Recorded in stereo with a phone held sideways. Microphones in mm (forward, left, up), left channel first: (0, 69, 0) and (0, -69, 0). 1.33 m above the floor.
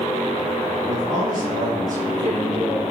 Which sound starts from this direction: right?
A man speaking, at 0.8 s.